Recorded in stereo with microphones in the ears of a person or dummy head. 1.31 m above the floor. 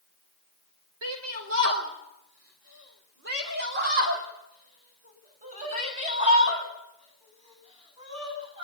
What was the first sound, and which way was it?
A shout, 75° right (ahead or behind).